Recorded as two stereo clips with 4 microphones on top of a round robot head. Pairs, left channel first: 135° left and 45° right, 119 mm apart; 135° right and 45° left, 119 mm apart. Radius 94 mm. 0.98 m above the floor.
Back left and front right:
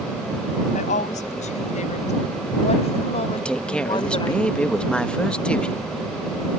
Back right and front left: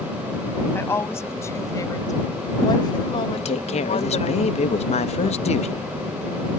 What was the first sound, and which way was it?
A woman speaking, 150° left.